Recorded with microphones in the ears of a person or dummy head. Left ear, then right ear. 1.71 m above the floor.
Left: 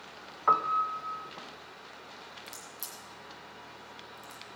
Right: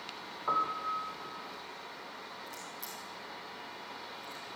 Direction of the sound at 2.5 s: 25° left (ahead or behind).